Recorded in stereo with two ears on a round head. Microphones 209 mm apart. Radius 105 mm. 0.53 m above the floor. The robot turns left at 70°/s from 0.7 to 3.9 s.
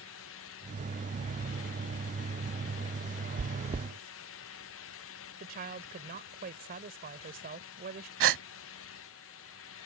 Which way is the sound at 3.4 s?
40° right (ahead or behind).